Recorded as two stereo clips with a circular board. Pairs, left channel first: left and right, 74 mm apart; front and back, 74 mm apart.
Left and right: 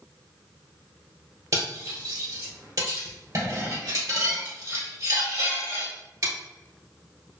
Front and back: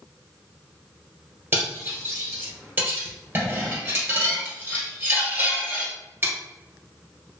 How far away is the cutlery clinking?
About 1.9 m.